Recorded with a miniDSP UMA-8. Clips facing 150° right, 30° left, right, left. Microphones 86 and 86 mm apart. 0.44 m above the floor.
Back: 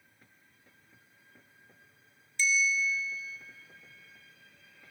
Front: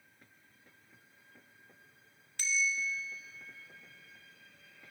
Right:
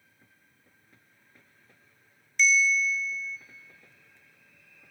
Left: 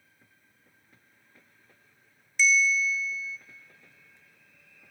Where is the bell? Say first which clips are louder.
Back 5 dB, even; 5° left, 0.7 m.